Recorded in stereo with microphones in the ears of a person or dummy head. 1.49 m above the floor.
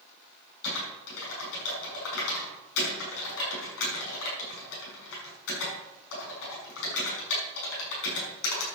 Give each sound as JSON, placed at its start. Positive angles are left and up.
{"t": 0.6, "sound": "typing on a keyboard", "side_deg": 70, "distance_m": 6.0}